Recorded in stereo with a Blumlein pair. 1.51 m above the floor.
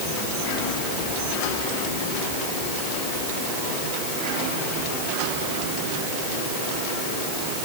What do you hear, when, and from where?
Only background noise.